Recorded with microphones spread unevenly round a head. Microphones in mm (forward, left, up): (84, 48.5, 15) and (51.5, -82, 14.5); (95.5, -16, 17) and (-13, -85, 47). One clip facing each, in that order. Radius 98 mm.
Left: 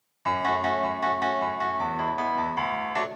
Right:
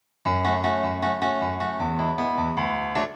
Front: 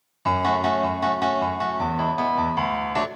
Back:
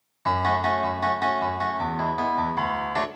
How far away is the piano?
About 2 m.